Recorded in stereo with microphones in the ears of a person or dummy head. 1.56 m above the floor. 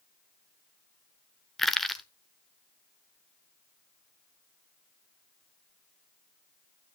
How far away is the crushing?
About 0.9 m.